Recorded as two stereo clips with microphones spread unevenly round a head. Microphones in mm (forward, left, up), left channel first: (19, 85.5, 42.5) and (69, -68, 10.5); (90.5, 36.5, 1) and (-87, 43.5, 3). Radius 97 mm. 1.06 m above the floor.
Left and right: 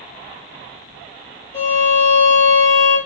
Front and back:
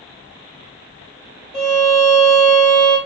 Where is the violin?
90° left, 2 m.